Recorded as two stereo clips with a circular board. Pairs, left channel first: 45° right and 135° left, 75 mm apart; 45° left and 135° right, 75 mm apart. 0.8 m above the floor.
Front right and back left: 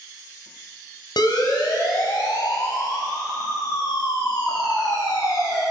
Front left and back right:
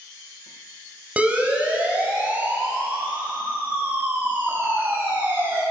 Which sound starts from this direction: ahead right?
A siren, at 1.2 s.